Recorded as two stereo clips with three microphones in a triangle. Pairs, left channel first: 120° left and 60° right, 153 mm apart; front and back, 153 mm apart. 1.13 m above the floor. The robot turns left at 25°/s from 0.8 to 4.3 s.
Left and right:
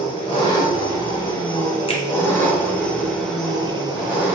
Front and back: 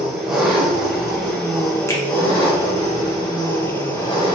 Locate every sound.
0.0 s an engine running: 100° left, 0.9 m; by 4.3 s 15° left, 0.9 m
1.9 s a finger snap: 70° left, 0.6 m; by 2.0 s 65° left, 0.6 m